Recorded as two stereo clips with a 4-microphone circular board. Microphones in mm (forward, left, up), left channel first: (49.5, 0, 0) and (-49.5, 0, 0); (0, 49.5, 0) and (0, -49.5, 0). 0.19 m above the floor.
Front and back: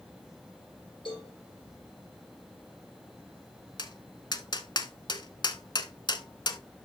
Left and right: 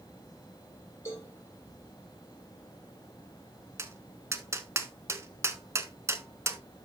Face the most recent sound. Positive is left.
turn(degrees=-35)